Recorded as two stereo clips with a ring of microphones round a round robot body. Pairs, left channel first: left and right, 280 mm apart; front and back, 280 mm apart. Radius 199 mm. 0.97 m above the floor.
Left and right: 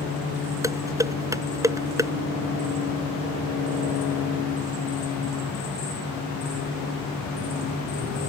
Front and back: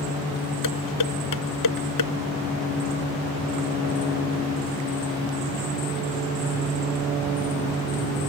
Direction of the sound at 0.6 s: 10° right.